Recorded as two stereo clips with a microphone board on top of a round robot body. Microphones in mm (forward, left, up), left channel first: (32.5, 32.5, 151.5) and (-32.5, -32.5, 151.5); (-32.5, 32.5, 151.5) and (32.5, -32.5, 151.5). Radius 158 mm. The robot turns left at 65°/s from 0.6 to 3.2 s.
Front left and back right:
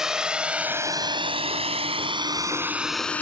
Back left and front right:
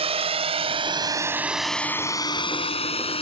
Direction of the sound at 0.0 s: 50° right.